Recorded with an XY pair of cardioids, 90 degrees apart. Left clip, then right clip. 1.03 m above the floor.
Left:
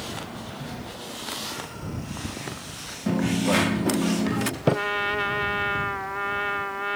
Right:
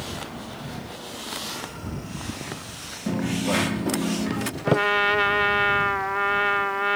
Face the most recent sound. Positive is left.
turn(degrees=-40)